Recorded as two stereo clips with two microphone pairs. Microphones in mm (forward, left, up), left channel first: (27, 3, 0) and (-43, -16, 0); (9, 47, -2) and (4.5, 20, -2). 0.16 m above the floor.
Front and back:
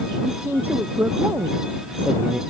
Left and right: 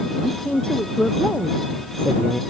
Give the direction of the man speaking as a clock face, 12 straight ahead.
8 o'clock.